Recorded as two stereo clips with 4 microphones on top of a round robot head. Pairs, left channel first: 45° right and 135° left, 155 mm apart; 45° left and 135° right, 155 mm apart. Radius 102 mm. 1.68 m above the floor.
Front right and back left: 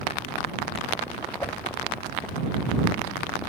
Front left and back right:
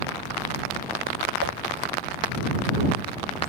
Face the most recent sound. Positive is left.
turn(degrees=-120)